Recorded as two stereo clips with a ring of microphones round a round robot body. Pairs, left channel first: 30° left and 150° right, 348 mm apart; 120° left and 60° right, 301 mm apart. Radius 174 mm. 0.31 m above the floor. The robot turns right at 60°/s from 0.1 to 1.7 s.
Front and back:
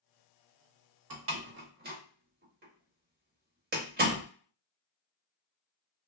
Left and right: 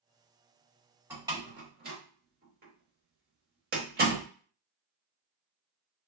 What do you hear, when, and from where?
1.1 s a door slam: 140° right, 0.8 m; by 4.2 s 105° right, 0.8 m